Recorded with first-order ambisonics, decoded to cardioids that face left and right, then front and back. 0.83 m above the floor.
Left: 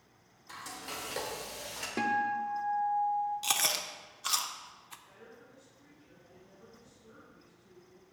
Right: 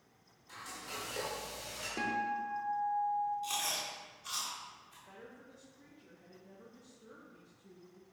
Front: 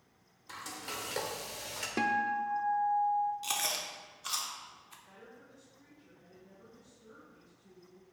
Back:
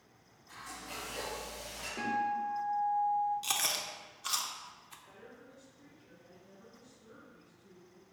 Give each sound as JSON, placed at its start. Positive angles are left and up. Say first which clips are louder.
{"t": 0.5, "sound": "frying", "louder": "left 3 dB, front 3 dB", "azimuth_deg": 25, "distance_m": 1.3}
{"t": 2.0, "sound": "a guitar", "louder": "left 5 dB, front 3 dB", "azimuth_deg": 30, "distance_m": 0.5}
{"t": 3.4, "sound": "chewing", "louder": "left 5 dB, back 1 dB", "azimuth_deg": 100, "distance_m": 0.5}
{"t": 5.1, "sound": "a woman speaking", "louder": "right 1 dB, back 1 dB", "azimuth_deg": -90, "distance_m": 1.0}